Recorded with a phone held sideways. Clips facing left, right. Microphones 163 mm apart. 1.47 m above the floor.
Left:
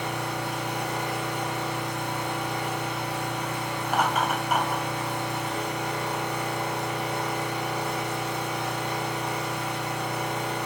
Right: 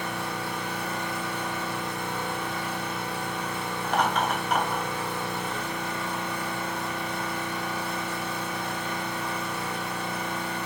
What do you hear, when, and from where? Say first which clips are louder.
0.0 s an engine running: left 2 dB; 80° left, 1.7 m
3.8 s laughter: even; 10° left (ahead or behind), 1.3 m